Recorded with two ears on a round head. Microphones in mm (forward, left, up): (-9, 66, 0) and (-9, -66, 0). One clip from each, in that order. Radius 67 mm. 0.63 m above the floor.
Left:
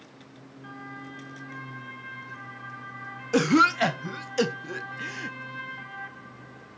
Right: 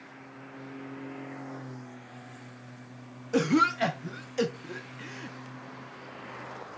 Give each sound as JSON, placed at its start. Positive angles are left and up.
{"t": 3.3, "sound": "a cough", "side_deg": 20, "distance_m": 0.7}